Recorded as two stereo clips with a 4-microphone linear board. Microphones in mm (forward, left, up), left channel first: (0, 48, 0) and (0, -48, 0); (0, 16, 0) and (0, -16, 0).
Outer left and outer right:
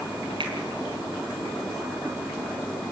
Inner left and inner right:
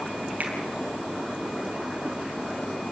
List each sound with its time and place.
0.4 s a finger snap: 60° right (ahead or behind), 4.5 m